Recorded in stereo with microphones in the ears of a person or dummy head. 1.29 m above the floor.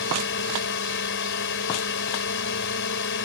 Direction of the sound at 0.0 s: 60° left (ahead or behind).